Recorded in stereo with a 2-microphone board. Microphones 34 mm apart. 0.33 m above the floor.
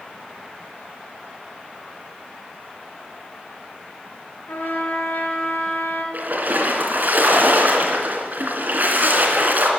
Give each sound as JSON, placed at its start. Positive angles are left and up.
{"t": 4.5, "sound": "a trumpet", "side_deg": 80, "distance_m": 3.0}
{"t": 6.1, "sound": "a splash", "side_deg": -60, "distance_m": 2.5}